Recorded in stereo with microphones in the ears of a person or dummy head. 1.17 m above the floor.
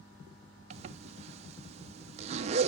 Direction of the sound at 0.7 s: 35° right (ahead or behind).